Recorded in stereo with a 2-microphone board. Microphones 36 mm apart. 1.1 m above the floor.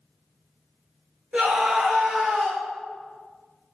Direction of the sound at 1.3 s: 30° right (ahead or behind).